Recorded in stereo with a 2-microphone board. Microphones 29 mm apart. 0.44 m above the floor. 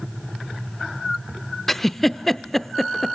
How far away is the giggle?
About 0.5 m.